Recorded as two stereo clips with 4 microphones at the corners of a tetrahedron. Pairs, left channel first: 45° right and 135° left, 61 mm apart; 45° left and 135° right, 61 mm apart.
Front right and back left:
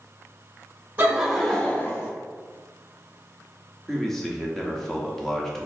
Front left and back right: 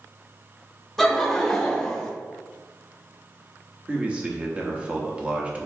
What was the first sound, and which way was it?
Laughter, 130° left.